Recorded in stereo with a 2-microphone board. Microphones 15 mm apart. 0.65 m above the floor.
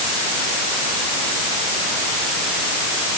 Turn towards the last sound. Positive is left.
No sound to turn to.